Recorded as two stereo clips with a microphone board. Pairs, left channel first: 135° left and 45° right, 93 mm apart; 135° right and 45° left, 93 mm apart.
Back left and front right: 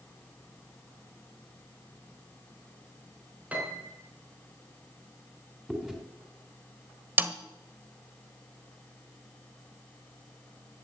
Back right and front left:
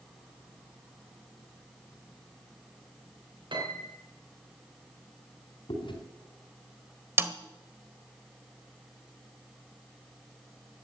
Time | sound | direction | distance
3.5 | a piano | 25° left | 4 m
5.7 | chewing | 125° right | 3.5 m
7.2 | a snare drum | 5° left | 1.3 m